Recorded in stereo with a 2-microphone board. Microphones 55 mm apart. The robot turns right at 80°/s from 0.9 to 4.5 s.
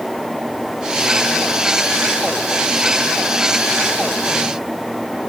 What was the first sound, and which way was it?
Only background noise.